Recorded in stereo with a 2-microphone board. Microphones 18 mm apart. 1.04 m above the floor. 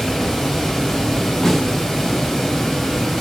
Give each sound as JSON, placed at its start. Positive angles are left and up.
{"t": 0.0, "sound": "running water", "side_deg": 25, "distance_m": 3.5}
{"t": 1.4, "sound": "a snare drum", "side_deg": 30, "distance_m": 3.5}